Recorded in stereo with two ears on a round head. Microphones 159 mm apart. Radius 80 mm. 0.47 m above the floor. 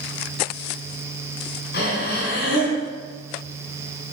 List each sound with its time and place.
1.7 s breathing: 60° left (ahead or behind), 2.5 m